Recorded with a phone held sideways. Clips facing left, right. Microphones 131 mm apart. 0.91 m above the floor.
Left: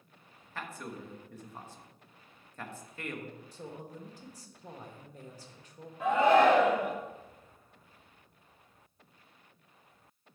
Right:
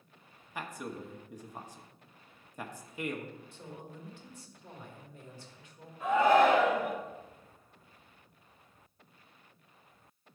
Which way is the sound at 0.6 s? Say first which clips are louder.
Right 2 dB; 15° right (ahead or behind).